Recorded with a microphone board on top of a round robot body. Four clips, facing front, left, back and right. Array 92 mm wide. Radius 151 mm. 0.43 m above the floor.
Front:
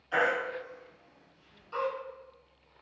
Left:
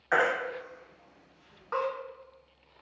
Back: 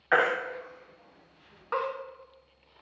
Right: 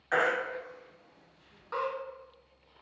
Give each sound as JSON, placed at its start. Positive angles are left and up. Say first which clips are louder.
{"t": 0.1, "sound": "a baby crying", "louder": "left 2 dB, back 3 dB", "azimuth_deg": 160, "distance_m": 0.7}